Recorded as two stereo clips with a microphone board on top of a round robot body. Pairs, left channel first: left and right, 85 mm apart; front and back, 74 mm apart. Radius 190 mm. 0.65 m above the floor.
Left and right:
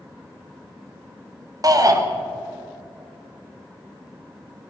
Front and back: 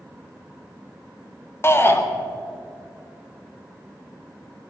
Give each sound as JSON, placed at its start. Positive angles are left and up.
{"t": 1.6, "sound": "a shout", "azimuth_deg": -50, "distance_m": 2.0}